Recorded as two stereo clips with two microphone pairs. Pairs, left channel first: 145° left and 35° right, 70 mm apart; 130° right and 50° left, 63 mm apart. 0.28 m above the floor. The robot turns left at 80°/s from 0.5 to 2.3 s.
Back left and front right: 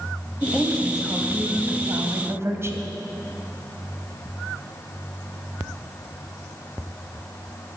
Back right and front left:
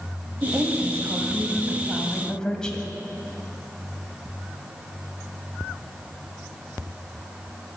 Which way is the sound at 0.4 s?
85° left.